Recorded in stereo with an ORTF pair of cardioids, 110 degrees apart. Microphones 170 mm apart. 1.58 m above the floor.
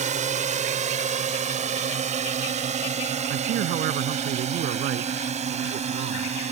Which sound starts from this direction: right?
A man speaking, at 3.3 s.